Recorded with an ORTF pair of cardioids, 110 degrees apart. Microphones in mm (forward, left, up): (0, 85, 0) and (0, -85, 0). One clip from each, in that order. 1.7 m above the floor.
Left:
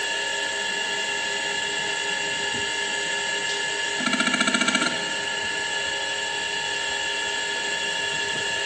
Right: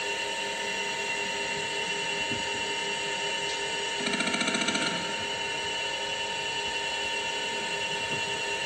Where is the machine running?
45° left, 2.5 m.